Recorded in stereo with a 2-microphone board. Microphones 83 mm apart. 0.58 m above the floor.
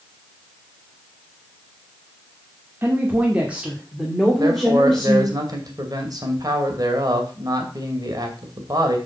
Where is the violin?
I don't hear a violin.